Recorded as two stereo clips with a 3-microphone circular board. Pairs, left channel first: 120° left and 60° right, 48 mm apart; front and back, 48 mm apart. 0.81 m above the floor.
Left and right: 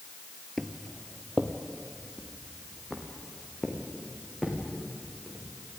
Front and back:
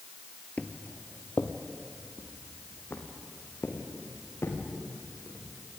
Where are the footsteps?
30° left, 0.9 m.